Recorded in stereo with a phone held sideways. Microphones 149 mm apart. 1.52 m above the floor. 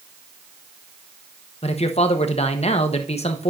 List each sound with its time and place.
1.6 s a man speaking: 45° left (ahead or behind), 0.9 m